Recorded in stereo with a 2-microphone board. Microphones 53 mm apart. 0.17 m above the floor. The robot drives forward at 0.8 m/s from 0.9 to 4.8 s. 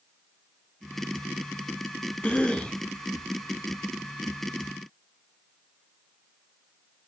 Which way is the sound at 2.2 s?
25° left (ahead or behind).